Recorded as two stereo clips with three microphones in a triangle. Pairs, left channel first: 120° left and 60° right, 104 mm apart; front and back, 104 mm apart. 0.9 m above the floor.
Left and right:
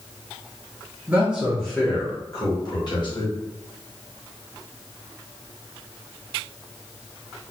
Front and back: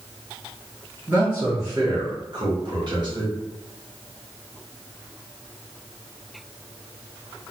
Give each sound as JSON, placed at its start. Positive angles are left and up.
{"t": 1.1, "sound": "a man speaking", "azimuth_deg": -120, "distance_m": 0.8}